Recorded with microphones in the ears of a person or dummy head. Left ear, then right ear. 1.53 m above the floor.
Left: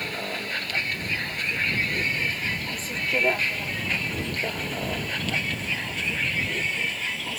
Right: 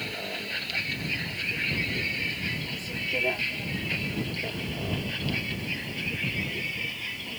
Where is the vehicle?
20° left (ahead or behind); by 7.4 s 40° left (ahead or behind).